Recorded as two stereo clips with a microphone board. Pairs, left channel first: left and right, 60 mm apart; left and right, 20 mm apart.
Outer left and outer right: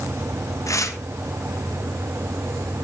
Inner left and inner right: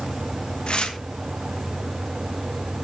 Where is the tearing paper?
60° left (ahead or behind), 1.5 m.